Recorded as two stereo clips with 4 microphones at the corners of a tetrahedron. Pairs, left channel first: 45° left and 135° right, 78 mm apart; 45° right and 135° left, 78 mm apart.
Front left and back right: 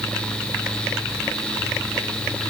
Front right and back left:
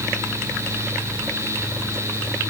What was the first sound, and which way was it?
Only background noise.